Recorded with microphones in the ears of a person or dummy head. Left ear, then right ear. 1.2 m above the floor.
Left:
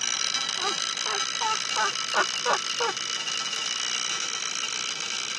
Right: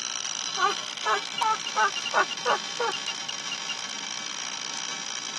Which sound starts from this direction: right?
Laughter, at 0.6 s.